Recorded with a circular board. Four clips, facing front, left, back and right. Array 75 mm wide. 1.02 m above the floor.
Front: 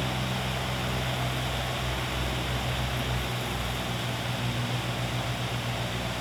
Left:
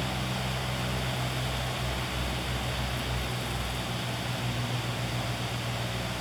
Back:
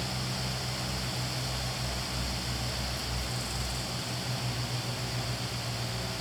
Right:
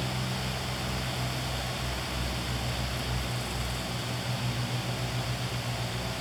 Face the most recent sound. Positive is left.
No sound to turn to.